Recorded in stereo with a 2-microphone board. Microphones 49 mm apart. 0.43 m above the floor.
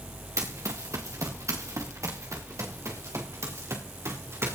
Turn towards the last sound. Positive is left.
turn(degrees=-60)  # may be behind; listen again after turning